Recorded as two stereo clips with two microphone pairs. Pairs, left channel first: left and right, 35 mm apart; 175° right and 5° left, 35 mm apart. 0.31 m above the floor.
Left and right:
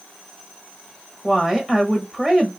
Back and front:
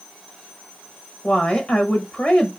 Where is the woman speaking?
155° right, 1.2 m.